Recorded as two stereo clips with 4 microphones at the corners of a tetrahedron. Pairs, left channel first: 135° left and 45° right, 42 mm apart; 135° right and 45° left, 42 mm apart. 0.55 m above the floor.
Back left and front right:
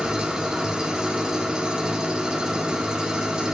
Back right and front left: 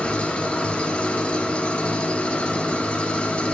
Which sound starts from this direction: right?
An engine running, at 0.0 s.